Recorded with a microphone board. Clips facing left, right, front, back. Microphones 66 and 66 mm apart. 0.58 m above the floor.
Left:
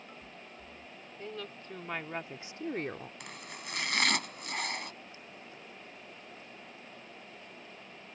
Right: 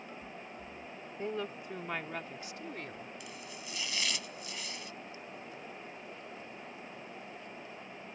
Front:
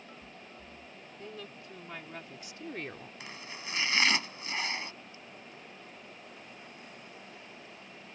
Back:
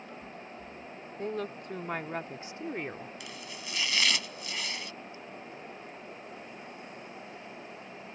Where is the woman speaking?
150° right; by 3.1 s 105° left.